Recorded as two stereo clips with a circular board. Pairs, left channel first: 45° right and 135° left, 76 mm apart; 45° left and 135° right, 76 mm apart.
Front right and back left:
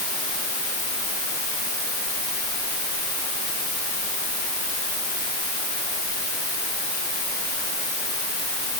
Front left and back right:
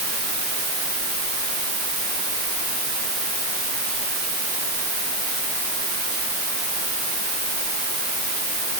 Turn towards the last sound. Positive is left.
No sound to turn to.